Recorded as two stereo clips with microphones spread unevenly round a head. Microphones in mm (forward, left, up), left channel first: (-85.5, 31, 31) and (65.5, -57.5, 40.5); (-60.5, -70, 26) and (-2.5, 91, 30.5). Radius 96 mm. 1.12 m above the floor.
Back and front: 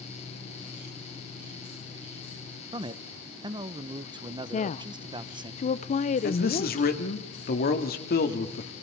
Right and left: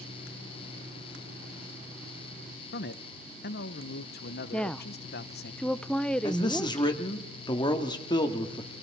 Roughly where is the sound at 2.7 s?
Right.